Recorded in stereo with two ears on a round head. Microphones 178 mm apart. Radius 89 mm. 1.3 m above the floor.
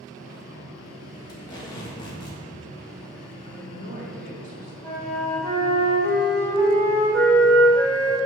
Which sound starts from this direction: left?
Tape being pulled, at 1.3 s.